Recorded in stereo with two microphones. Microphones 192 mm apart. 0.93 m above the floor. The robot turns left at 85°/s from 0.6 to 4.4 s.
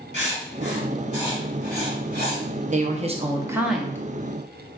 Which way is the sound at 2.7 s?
90° right.